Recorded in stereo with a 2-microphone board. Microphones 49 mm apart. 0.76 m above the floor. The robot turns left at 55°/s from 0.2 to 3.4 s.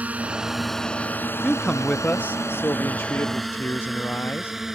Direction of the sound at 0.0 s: 30° right (ahead or behind).